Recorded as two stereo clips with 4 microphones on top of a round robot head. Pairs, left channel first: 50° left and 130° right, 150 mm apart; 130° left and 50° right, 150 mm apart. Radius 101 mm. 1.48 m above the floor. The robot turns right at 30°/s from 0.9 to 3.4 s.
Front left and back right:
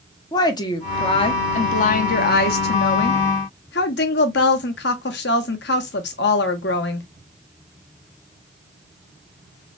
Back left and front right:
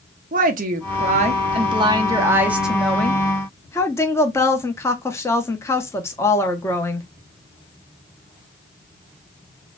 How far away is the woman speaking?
About 0.8 m.